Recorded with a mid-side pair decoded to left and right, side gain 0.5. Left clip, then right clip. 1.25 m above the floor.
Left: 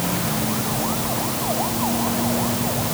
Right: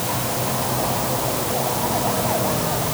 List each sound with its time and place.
Only background noise.